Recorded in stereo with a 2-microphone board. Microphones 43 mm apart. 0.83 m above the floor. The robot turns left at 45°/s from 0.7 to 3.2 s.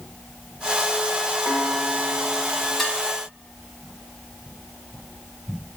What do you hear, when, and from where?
1.4 s a piano: 65° right, 2.5 m; by 2.7 s 120° right, 2.5 m
2.8 s dishes clattering: 5° left (ahead or behind), 2.5 m; by 3.0 s 10° left (ahead or behind), 2.5 m